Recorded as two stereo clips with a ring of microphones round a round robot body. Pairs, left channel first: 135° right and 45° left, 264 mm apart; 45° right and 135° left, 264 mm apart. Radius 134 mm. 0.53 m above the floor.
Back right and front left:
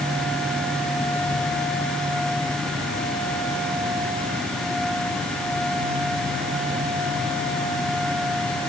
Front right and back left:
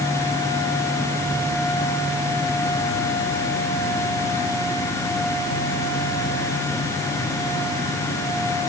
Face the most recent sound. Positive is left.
No sound to turn to.